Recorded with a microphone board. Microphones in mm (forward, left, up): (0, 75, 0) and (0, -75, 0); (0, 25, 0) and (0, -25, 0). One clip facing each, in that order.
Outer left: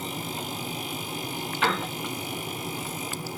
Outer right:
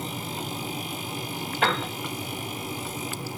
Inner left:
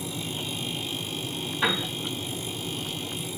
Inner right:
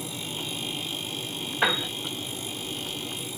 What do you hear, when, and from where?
1.6 s a piano: 55° right (ahead or behind), 1.4 m